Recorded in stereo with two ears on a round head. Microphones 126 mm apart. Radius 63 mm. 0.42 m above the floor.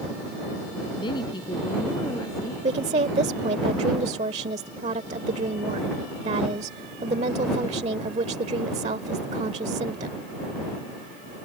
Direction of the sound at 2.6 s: 50° right (ahead or behind).